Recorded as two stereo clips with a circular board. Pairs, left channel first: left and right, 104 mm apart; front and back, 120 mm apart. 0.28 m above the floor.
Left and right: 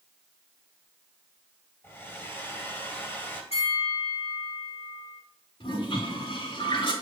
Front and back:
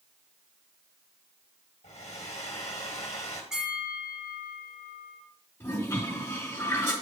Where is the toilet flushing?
70° left, 3.5 m.